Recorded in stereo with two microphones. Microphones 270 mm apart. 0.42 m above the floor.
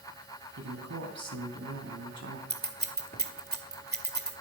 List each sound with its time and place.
0.6 s a man speaking: 75° right (ahead or behind), 3.5 m
2.5 s scissors: 35° right (ahead or behind), 1.9 m